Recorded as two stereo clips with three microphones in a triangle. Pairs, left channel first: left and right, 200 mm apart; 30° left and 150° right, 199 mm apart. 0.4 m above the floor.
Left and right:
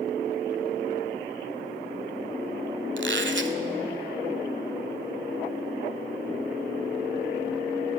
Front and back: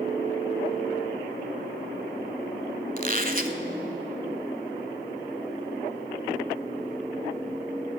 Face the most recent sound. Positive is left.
turn(degrees=-105)